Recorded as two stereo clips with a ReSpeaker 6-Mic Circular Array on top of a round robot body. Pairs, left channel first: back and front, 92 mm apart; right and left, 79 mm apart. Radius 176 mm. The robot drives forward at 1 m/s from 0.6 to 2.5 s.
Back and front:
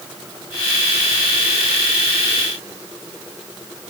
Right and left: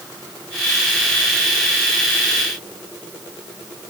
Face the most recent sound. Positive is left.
No sound to turn to.